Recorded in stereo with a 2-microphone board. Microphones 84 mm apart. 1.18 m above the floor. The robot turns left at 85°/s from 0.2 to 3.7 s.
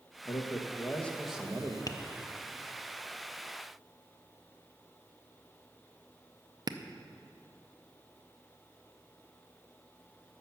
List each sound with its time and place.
0.2 s a man speaking: 85° left, 1.2 m; by 1.8 s 45° right, 1.2 m
1.9 s tapping: 45° left (ahead or behind), 0.6 m; by 6.8 s 50° right (ahead or behind), 0.6 m